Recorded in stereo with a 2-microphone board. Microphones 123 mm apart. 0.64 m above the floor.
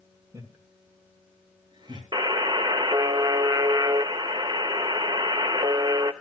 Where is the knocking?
I don't hear knocking.